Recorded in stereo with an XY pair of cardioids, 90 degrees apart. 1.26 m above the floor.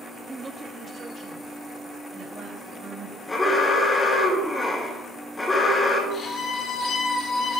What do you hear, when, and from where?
0.3 s a woman speaking: 20° right, 0.9 m; by 3.2 s 60° right, 4.5 m
3.3 s an alarm: 25° left, 3 m
6.1 s a violin: 60° left, 2 m